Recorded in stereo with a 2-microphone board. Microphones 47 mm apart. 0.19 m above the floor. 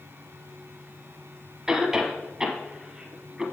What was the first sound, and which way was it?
A cough, 15° right (ahead or behind).